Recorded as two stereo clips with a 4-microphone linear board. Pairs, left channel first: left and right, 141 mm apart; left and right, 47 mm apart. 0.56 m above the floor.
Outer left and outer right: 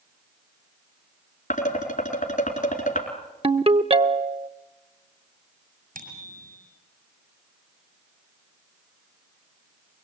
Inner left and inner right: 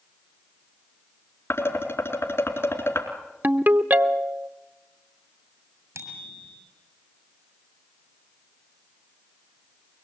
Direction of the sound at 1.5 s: 65° left (ahead or behind).